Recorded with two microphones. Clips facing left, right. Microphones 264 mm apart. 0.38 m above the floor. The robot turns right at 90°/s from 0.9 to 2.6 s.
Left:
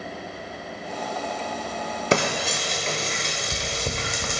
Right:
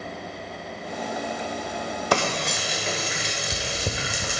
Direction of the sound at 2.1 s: 25° left (ahead or behind).